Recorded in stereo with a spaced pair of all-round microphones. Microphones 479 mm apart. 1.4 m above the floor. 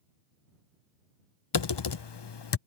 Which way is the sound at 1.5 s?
60° left (ahead or behind).